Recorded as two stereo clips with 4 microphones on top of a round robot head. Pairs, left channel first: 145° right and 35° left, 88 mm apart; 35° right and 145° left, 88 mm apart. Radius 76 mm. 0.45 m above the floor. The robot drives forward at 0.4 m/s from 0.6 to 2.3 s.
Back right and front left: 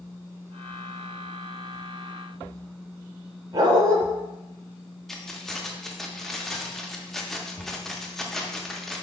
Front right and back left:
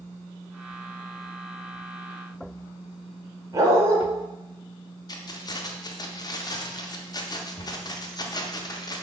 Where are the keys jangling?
55° right, 0.6 m.